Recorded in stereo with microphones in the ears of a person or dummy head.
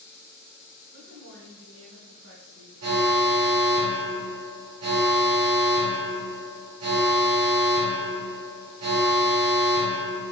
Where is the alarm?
80° right, 4 m.